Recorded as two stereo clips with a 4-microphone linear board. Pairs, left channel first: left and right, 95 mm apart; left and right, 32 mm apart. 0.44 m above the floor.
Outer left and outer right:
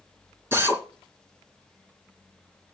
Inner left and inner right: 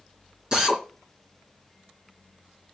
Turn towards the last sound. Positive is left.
turn(degrees=-25)  # may be behind; listen again after turning